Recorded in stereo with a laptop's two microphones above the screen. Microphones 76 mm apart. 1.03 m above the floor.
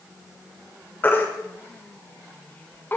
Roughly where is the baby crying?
Left.